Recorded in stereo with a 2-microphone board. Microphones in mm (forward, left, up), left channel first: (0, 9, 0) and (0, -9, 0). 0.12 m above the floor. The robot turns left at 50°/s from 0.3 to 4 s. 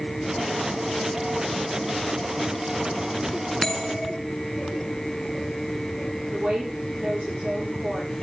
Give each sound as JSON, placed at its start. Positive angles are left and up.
{"t": 3.6, "sound": "a bell", "side_deg": 20, "distance_m": 1.4}
{"t": 6.3, "sound": "a woman speaking", "side_deg": -50, "distance_m": 9.0}